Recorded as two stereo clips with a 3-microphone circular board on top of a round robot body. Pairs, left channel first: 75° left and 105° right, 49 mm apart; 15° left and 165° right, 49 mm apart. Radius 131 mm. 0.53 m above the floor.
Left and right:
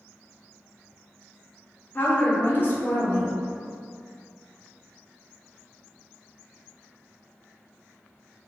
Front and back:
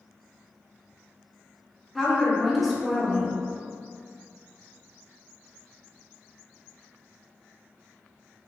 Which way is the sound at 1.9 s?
110° left.